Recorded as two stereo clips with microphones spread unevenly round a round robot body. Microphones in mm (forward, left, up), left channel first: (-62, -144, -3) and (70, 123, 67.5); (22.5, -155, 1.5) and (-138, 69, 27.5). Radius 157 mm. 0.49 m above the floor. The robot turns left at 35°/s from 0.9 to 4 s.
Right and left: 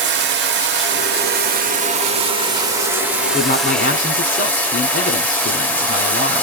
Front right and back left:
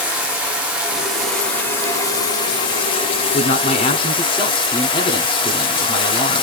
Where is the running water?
30° left, 0.7 m; by 6.4 s 75° right, 0.7 m.